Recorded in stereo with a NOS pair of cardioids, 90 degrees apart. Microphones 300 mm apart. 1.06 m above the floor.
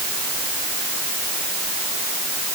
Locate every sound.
Only background noise.